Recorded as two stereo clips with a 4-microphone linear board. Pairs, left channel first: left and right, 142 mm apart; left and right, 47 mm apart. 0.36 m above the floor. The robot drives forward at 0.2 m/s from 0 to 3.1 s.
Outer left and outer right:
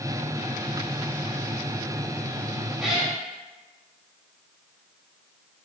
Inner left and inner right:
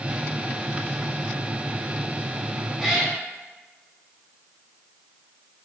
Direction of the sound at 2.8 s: Centre (ahead or behind).